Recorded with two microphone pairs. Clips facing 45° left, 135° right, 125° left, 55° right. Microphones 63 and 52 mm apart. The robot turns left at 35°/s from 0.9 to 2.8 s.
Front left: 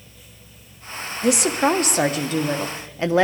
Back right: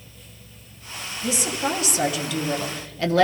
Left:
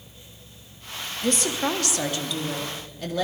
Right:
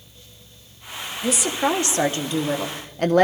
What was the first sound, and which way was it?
A woman speaking, 30° left.